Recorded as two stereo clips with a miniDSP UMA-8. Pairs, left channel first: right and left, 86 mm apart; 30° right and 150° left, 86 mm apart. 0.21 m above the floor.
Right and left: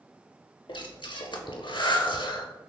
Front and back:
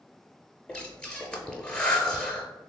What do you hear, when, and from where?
0.7 s breathing: 110° right, 0.6 m